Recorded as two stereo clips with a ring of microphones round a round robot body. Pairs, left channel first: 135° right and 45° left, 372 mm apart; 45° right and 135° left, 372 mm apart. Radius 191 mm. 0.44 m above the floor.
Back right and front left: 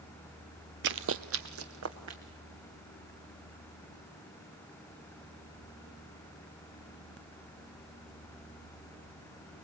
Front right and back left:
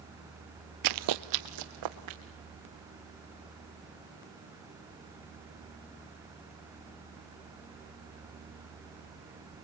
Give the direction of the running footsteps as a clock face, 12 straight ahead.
9 o'clock.